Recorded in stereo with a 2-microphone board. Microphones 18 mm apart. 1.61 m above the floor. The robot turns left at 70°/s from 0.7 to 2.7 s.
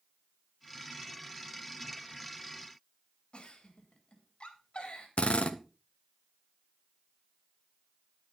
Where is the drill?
85° left, 0.9 m.